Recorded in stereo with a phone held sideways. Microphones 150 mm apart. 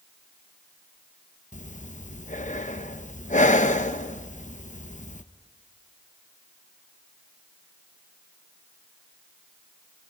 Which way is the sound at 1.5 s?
55° left (ahead or behind).